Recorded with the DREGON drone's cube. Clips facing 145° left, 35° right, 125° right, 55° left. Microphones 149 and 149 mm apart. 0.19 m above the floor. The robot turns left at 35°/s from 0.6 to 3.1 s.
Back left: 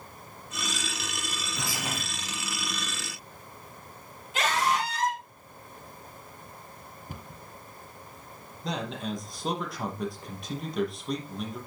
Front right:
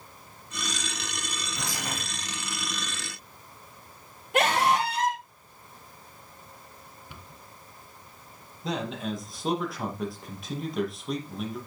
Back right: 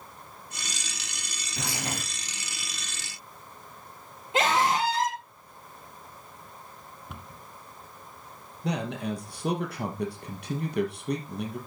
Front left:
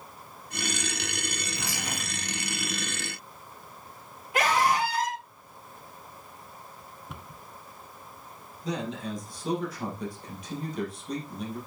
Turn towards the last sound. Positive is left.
turn(degrees=-125)